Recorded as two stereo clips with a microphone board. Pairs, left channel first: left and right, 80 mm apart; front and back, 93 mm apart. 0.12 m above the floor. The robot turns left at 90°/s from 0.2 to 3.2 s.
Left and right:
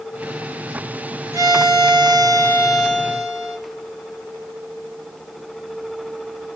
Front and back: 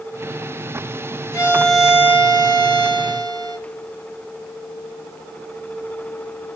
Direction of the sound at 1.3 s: 45° right.